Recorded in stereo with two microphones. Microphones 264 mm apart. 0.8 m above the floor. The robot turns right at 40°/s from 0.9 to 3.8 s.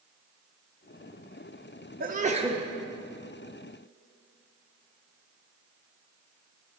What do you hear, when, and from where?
2.0 s a sneeze: 35° right (ahead or behind), 0.5 m; by 2.6 s 15° right (ahead or behind), 0.5 m